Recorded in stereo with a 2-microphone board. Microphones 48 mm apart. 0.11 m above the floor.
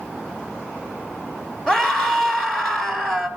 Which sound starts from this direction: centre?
A scream, at 1.7 s.